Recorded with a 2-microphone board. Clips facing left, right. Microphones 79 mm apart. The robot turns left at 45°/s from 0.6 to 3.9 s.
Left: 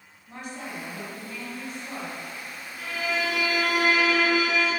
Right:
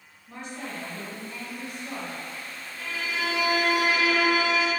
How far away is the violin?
About 0.9 m.